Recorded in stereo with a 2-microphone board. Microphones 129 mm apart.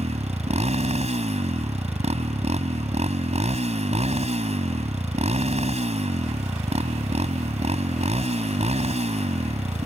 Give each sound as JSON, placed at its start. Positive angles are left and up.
{"t": 0.0, "sound": "a motorcycle", "side_deg": -60}